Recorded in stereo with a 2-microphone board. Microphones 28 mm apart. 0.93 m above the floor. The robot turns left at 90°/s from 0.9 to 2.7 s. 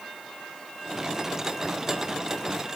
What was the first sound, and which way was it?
Only background noise.